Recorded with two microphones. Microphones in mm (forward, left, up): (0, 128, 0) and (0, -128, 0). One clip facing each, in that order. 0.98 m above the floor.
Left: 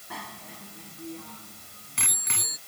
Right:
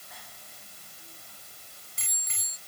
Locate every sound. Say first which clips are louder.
0.1 s a bicycle bell: left 14 dB; 80° left; by 2.6 s 85° left